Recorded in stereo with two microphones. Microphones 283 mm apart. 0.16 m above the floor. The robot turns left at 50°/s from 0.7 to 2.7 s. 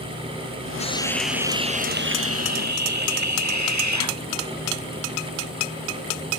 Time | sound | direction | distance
0.8 | a hiss | 25° left | ?